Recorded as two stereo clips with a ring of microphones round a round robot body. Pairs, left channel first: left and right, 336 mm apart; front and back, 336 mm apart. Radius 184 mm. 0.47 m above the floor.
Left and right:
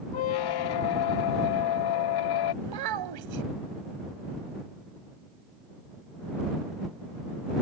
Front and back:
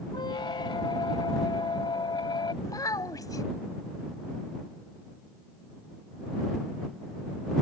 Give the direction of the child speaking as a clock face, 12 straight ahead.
3 o'clock.